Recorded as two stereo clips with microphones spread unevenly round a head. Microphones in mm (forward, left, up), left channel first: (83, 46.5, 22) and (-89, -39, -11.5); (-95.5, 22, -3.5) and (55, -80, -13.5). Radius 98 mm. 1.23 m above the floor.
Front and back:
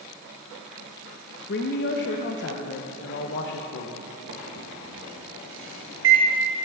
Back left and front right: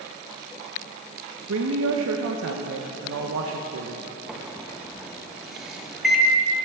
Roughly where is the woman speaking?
Ahead.